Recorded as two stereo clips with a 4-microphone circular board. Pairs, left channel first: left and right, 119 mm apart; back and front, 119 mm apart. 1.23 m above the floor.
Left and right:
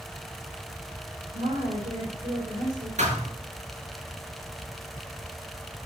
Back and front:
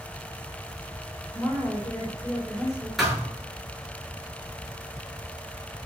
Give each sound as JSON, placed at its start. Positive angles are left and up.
{"t": 1.3, "sound": "a woman speaking", "azimuth_deg": -115, "distance_m": 4.0}
{"t": 3.0, "sound": "a thud", "azimuth_deg": -90, "distance_m": 8.5}